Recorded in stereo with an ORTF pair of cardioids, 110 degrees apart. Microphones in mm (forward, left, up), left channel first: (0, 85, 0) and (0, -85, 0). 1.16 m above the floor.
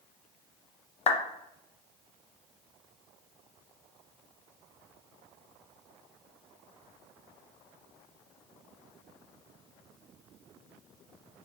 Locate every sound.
1.1 s a clap: 40° left, 0.6 m